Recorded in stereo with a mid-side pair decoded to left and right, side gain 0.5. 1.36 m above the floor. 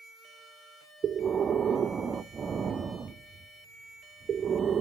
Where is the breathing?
40° right, 1.0 m.